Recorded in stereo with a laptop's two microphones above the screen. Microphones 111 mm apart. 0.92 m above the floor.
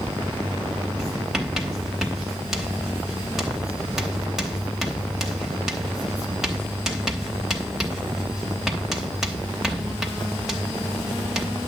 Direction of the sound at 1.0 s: 5° right (ahead or behind).